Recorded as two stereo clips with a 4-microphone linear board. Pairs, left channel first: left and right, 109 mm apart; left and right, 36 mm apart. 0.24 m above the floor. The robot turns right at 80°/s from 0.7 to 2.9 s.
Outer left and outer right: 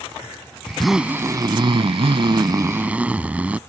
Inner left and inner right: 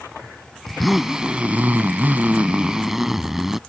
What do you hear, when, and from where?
0.7 s a zipper: 170° left; by 3.6 s 15° right